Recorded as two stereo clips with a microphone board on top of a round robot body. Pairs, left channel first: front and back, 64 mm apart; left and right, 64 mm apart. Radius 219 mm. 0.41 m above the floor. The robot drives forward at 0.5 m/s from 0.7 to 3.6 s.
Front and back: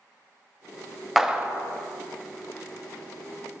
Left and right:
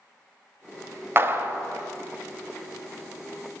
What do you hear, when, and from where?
1.2 s a clap: 95° right, 0.6 m; by 1.6 s 130° right, 0.6 m